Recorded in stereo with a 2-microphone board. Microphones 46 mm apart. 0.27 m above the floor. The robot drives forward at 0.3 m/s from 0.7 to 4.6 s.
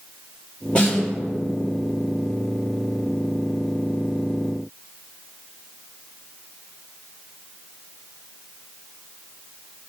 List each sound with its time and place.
0.8 s a snare drum: 25° left (ahead or behind), 4 m; by 1.1 s 20° left (ahead or behind), 4.5 m